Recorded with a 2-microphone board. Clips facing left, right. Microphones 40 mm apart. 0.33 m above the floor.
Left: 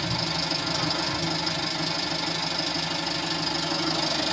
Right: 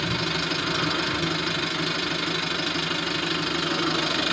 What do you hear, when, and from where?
0.0 s an engine running: 35° right (ahead or behind), 0.9 m